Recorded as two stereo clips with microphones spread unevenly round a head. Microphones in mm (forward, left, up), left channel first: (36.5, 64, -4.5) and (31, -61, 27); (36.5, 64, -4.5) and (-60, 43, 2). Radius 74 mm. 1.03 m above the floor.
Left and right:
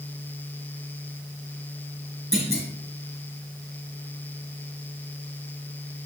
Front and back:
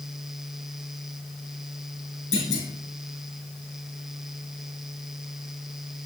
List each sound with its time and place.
2.3 s a clunk: straight ahead, 3.5 m